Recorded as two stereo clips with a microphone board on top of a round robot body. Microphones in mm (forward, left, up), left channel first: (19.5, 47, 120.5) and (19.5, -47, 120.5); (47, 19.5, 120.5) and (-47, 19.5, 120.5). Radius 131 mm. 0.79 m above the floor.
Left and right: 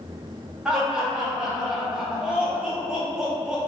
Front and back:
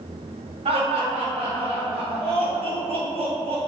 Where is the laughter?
170° right, 1.5 m.